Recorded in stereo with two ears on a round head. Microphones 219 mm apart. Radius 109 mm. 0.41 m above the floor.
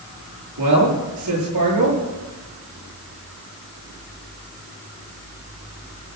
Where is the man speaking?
80° right, 7.5 m.